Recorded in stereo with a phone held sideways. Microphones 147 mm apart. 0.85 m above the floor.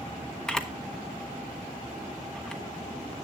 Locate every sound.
0.5 s a camera shutter: 5° left (ahead or behind), 1.2 m